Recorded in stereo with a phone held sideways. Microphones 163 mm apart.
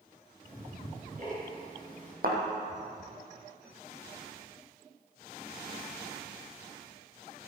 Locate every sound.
0.4 s ticking: 55° right (ahead or behind), 4 m
2.2 s a thud: 60° right (ahead or behind), 3 m